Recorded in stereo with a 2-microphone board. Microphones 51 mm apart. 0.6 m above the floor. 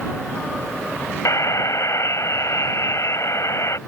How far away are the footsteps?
I don't hear footsteps.